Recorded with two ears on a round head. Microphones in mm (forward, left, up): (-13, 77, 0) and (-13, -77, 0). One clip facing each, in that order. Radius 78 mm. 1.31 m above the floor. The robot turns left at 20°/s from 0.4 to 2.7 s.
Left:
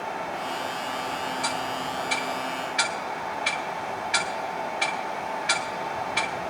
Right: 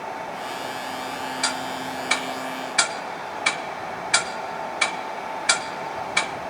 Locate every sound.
1.4 s ticking: 70° right (ahead or behind), 1.0 m; by 6.3 s 55° right (ahead or behind), 1.0 m